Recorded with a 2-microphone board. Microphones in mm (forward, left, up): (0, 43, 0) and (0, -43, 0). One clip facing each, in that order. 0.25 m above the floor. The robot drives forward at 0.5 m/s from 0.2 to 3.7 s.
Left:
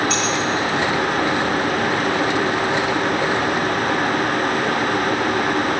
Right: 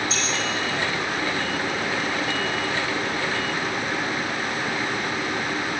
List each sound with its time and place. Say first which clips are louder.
0.1 s keys jangling: left 7 dB; 75° left (ahead or behind), 3 m